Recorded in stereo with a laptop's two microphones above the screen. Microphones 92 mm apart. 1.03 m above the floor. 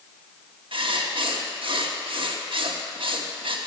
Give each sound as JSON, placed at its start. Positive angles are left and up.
{"t": 0.7, "sound": "writing", "side_deg": -70, "distance_m": 1.0}